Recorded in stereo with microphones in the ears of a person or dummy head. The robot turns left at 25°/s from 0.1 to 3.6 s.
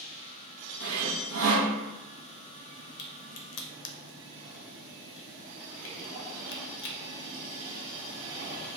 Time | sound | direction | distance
0.8 | sawing | 60° right (ahead or behind) | 0.8 m
3.0 | a crack | 55° left (ahead or behind) | 0.6 m